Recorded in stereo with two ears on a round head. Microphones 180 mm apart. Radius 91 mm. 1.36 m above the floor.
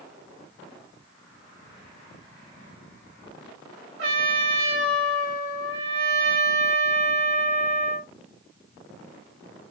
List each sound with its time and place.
4.0 s a trumpet: 65° right (ahead or behind), 3 m